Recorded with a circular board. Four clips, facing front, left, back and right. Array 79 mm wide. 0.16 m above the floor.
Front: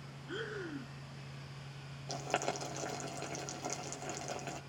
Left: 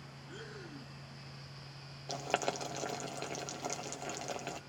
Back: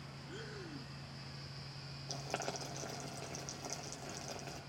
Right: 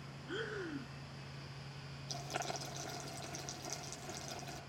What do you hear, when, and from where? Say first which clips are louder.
0.3 s breathing: right 7 dB, front 8 dB; 35° right, 1.1 m
2.1 s boiling: left 7 dB, front 6 dB; 65° left, 2.5 m